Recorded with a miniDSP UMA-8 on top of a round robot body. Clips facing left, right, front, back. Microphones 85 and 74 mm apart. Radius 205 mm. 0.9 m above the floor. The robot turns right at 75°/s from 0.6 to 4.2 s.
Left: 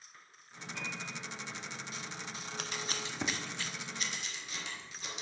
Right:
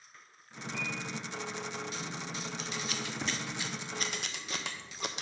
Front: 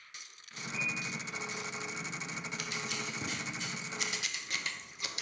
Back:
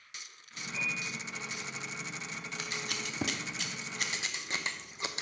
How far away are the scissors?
About 0.5 m.